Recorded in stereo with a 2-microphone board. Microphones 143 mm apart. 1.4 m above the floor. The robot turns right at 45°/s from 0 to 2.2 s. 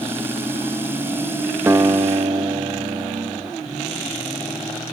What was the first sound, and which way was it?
A guitar, 20° right (ahead or behind).